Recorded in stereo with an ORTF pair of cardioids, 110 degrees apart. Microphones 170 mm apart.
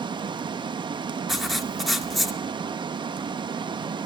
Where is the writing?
Straight ahead, 2 m.